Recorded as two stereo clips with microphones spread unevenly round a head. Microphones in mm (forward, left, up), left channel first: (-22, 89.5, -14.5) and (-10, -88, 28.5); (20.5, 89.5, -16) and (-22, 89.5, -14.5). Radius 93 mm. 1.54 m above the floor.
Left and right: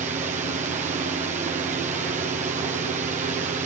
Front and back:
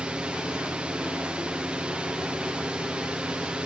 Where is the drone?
125° right.